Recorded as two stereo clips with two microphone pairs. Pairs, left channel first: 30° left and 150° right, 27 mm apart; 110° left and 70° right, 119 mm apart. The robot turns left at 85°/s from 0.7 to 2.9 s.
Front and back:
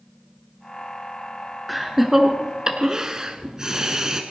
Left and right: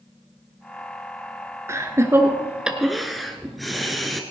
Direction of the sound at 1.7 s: 60° right.